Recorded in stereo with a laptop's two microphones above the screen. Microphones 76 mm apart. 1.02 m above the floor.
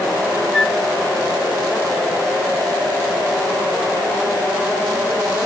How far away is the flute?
About 1.6 m.